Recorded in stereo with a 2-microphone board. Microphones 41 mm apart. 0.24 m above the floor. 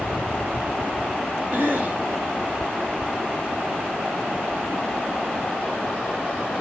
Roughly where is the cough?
Right.